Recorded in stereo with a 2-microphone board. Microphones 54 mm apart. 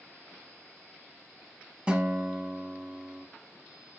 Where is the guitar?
20° right (ahead or behind), 0.7 m.